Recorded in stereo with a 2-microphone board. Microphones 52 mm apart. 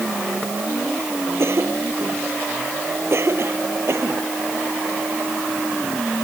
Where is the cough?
55° right (ahead or behind).